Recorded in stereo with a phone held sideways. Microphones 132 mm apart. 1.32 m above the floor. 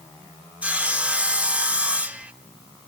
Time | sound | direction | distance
0.6 | sawing | 10° right (ahead or behind) | 0.8 m